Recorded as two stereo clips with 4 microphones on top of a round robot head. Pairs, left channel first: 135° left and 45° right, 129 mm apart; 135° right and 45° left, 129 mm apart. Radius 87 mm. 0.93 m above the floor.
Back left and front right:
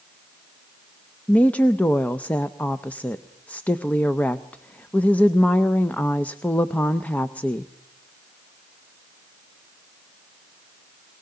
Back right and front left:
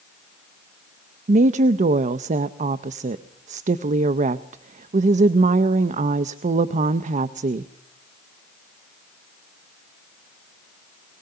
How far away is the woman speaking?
About 0.5 m.